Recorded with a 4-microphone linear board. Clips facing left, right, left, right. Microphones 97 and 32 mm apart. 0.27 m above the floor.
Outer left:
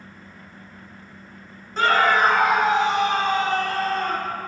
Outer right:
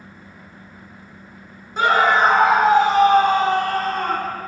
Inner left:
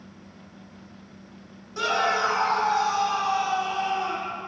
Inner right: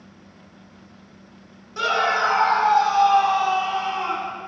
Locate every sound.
1.8 s a scream: 15° right (ahead or behind), 1.3 m; by 4.4 s 55° right (ahead or behind), 2.5 m